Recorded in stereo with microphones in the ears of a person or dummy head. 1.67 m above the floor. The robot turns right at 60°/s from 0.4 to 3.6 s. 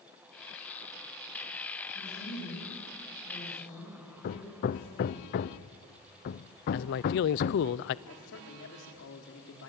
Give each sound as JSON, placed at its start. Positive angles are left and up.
{"t": 1.9, "sound": "a woman speaking", "azimuth_deg": 60, "distance_m": 9.0}
{"t": 4.2, "sound": "hammering", "side_deg": 50, "distance_m": 0.6}
{"t": 6.7, "sound": "a man speaking", "side_deg": 55, "distance_m": 0.5}
{"t": 8.1, "sound": "a man speaking", "side_deg": 70, "distance_m": 3.5}